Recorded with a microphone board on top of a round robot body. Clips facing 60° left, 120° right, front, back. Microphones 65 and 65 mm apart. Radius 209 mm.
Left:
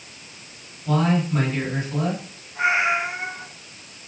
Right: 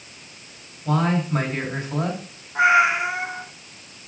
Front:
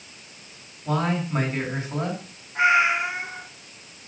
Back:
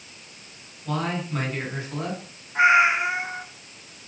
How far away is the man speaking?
About 6 m.